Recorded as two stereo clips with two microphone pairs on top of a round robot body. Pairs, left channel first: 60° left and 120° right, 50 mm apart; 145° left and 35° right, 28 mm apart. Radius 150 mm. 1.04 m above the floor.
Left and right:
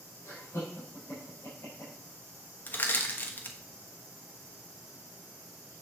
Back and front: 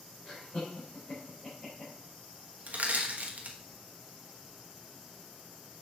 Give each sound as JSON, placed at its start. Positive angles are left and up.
{"t": 0.2, "sound": "laughter", "azimuth_deg": 100, "distance_m": 4.0}
{"t": 2.7, "sound": "crushing", "azimuth_deg": 5, "distance_m": 1.2}